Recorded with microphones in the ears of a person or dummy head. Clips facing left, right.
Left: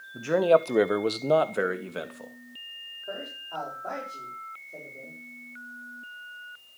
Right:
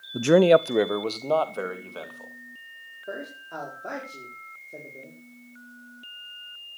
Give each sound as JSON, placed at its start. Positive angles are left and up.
{"t": 0.1, "sound": "a man speaking", "side_deg": -70, "distance_m": 0.6}
{"t": 3.1, "sound": "a man speaking", "side_deg": -30, "distance_m": 5.0}